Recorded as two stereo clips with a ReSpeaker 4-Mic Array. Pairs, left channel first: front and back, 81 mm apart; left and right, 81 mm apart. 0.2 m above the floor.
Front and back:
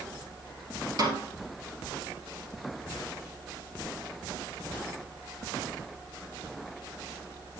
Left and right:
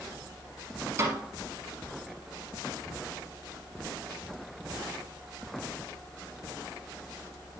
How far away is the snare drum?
About 2.0 m.